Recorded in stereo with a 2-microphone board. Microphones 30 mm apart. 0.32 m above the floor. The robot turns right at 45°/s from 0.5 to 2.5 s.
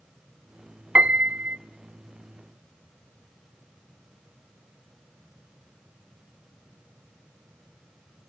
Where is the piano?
55° right (ahead or behind), 0.7 m; by 1.6 s 80° right, 0.7 m.